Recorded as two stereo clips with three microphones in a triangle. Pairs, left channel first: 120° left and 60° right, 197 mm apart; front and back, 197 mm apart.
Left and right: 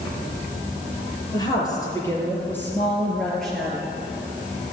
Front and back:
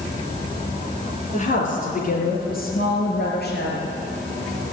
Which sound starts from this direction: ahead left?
A woman speaking, at 1.3 s.